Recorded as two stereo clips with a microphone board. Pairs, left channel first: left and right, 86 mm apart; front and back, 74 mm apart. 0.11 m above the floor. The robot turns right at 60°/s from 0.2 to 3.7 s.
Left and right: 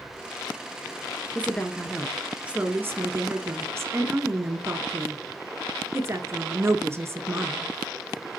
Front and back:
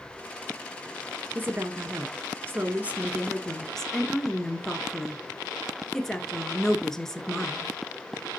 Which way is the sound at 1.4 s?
140° left.